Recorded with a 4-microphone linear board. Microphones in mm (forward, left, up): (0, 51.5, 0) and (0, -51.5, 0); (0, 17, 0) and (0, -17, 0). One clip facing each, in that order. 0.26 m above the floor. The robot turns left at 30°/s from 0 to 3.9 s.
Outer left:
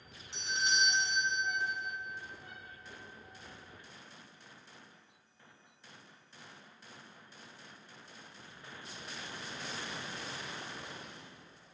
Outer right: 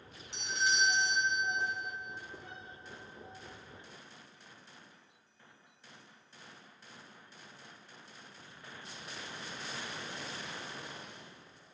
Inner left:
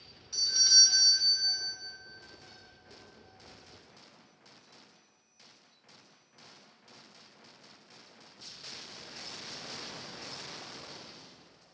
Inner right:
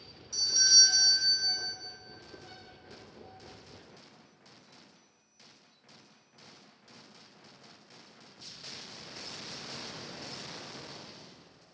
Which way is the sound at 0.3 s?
20° left (ahead or behind).